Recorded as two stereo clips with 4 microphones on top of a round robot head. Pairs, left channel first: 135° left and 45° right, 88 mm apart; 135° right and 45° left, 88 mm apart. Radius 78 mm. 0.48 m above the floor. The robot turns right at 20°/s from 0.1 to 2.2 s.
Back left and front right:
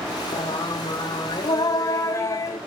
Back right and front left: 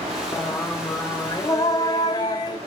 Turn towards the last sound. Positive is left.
turn(degrees=-170)